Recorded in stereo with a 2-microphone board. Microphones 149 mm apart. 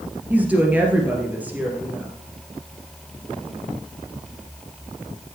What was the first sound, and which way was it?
A woman speaking, 10° right (ahead or behind).